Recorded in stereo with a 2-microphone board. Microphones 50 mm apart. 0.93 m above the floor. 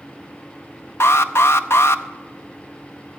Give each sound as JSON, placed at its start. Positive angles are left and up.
{"t": 1.0, "sound": "an alarm", "side_deg": 60, "distance_m": 0.7}